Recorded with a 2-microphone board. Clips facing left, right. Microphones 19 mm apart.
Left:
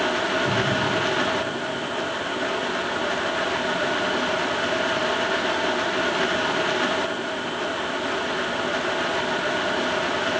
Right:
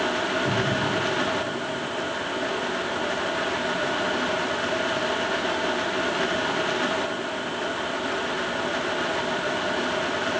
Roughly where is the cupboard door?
Right.